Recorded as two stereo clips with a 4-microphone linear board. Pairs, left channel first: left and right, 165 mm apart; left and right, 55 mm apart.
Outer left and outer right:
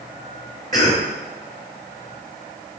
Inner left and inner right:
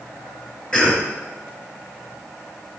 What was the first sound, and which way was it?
A cough, 20° left (ahead or behind).